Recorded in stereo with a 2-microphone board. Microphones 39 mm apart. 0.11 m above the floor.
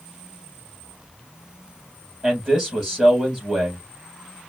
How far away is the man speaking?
About 3.5 m.